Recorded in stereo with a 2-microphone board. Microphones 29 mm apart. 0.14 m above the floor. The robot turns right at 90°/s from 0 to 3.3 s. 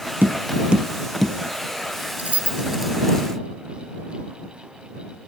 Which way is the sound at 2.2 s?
55° right (ahead or behind).